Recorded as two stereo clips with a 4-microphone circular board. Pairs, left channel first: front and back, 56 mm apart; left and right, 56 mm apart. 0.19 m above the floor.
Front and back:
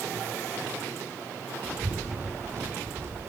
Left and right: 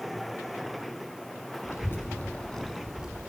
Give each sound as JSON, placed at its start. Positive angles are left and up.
{"t": 1.6, "sound": "a child speaking", "azimuth_deg": 105, "distance_m": 1.4}